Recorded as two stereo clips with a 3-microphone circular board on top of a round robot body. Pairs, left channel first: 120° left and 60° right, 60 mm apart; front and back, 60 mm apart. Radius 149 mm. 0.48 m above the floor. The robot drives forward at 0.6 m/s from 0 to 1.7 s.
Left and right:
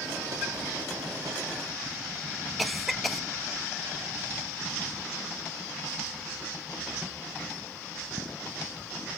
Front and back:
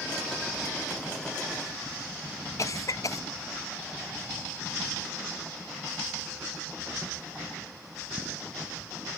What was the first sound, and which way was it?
A cough, 30° left.